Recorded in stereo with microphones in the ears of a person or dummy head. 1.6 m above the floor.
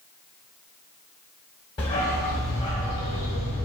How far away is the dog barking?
About 1.4 m.